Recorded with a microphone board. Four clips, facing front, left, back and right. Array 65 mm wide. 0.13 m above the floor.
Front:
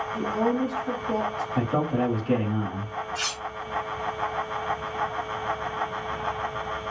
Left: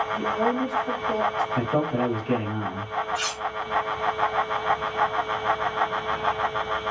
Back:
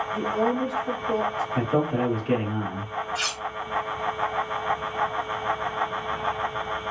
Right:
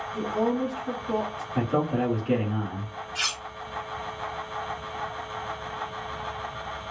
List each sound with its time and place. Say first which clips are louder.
0.1 s a woman speaking: right 1 dB, even; 175° left, 1.4 m; by 1.4 s 120° right, 1.3 m
1.6 s a man speaking: left 2 dB, back 1 dB; 160° right, 1.1 m
3.1 s cutlery clinking: left 3 dB, back 2 dB; 105° right, 2.0 m